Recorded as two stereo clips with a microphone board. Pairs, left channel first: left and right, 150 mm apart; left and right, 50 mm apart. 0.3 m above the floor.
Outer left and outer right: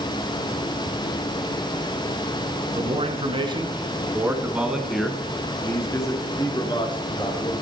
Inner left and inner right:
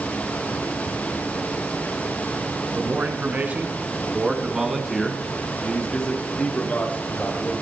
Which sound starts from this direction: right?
A man speaking, at 2.8 s.